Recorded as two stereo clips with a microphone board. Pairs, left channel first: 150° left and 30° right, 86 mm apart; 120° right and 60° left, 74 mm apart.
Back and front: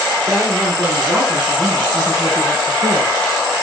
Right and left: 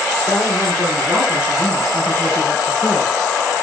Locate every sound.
0.3 s a woman speaking: 75° right, 4.5 m; by 3.1 s 50° right, 3.5 m